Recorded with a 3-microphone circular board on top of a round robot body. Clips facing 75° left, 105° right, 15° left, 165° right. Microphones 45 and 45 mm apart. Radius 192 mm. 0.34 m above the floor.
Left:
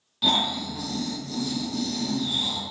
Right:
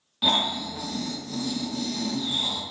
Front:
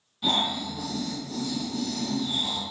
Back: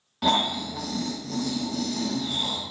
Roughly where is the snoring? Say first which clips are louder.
Even, back 3 dB; behind.